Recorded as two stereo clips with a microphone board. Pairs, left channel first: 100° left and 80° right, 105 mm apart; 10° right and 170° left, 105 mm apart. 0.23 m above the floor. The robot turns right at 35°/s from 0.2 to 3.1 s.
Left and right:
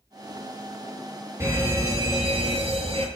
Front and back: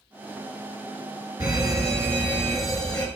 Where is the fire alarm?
145° right, 5.5 m; by 3.1 s 85° right, 5.5 m.